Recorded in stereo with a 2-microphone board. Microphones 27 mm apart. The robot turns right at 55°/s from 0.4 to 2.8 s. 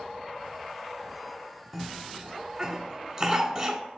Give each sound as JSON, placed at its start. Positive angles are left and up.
{"t": 1.7, "sound": "a cough", "side_deg": 5, "distance_m": 1.2}